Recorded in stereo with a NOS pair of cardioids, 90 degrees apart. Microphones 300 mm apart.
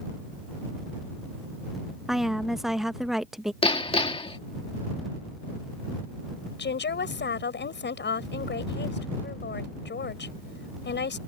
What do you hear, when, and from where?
2.1 s a woman speaking: straight ahead
3.6 s hammering: 20° left
6.6 s a woman speaking: 35° left